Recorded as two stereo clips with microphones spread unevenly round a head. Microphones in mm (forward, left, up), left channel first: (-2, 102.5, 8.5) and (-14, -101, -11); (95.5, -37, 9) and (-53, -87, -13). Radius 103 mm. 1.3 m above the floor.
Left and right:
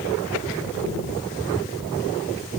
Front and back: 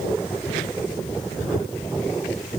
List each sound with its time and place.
Only background noise.